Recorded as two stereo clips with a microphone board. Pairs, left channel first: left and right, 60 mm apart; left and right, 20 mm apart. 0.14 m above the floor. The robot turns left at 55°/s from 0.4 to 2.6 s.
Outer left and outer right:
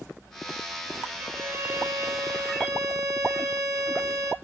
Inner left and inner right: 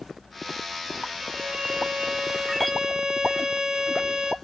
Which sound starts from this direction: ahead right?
A violin, at 1.2 s.